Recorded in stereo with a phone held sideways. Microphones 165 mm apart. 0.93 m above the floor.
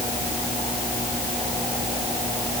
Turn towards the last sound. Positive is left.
No sound to turn to.